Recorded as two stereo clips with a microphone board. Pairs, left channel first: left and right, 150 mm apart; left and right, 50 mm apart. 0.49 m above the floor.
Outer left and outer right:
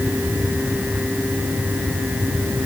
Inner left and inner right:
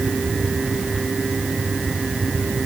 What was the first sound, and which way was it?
Only background noise.